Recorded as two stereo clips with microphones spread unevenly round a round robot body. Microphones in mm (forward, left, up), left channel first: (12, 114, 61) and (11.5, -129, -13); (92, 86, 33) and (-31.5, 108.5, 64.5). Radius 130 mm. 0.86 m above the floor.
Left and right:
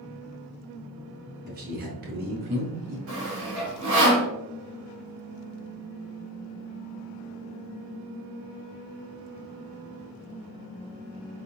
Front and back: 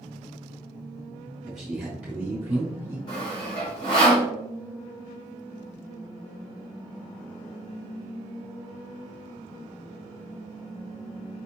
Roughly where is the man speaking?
Right.